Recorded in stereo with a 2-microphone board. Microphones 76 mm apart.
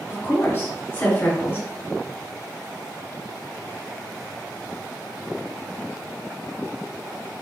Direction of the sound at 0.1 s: 35° left (ahead or behind).